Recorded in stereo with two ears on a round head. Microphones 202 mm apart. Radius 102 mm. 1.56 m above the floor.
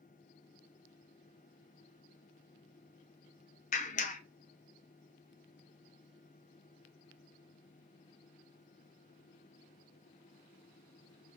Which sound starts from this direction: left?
A clap, at 3.7 s.